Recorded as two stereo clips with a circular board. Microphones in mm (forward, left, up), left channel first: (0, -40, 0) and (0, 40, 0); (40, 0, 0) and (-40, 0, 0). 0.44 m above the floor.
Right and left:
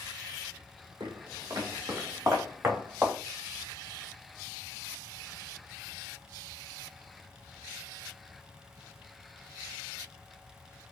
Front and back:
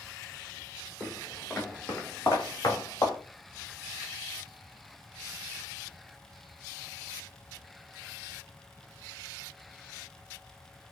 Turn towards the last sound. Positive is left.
turn(degrees=25)